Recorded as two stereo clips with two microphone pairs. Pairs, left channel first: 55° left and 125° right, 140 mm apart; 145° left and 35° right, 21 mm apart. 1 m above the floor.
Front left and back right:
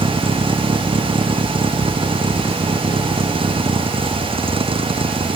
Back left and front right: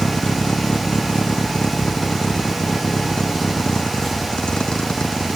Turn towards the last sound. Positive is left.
turn(degrees=-175)